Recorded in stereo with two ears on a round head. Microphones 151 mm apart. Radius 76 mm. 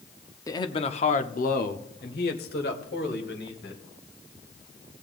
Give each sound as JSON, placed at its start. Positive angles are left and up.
{"t": 0.5, "sound": "a man speaking", "side_deg": 20, "distance_m": 0.7}